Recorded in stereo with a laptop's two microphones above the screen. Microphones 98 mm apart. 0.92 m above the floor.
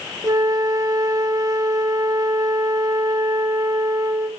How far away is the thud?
I don't hear a thud.